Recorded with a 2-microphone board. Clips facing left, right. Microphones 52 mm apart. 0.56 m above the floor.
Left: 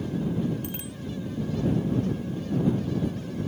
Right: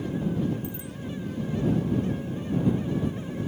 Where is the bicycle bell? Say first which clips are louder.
Even; 70° left (ahead or behind).